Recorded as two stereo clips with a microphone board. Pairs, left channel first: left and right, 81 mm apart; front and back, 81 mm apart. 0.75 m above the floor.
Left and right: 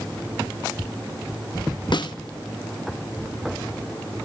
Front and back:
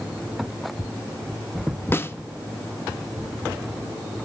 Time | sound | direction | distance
1.9 | a snare drum | 60° left | 0.7 m